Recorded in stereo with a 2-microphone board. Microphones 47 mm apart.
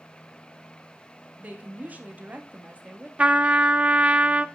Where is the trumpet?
25° right (ahead or behind), 0.5 m.